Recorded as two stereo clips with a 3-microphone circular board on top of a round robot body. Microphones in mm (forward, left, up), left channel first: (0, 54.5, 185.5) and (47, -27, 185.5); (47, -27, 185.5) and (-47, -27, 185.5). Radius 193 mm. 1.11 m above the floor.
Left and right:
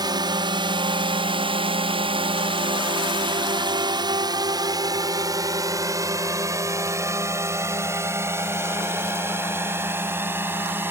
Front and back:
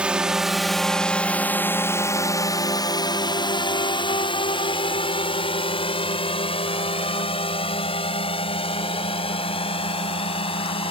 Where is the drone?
100° right; by 10.9 s 5° left.